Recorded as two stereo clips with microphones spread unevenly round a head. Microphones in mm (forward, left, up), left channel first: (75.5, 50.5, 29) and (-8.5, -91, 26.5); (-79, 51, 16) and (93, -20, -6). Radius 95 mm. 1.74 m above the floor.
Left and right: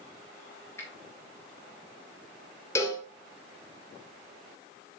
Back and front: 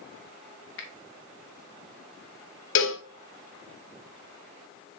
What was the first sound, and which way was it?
A finger snap, 135° left.